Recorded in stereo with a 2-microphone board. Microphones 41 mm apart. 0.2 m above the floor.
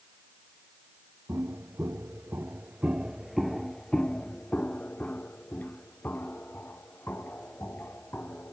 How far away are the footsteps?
About 1.4 m.